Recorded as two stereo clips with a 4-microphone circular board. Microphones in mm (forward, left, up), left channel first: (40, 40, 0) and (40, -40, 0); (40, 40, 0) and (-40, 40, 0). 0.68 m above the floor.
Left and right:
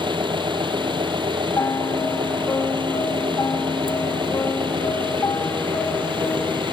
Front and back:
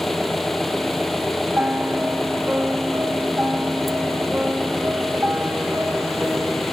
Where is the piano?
115° left.